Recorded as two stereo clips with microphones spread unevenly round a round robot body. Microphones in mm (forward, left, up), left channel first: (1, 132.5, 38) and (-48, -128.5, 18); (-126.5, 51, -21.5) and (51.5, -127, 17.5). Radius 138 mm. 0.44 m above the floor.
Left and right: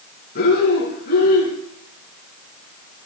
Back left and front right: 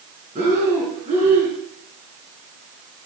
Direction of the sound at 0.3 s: 20° left.